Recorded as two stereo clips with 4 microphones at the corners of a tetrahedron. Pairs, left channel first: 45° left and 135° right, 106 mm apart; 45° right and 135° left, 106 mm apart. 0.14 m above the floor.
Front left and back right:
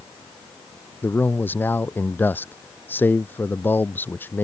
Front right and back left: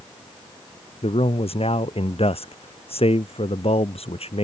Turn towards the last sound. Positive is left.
turn(degrees=-25)